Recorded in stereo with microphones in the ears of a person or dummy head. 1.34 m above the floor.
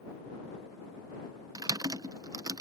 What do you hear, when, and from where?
1.6 s typing on a keyboard: 20° right (ahead or behind)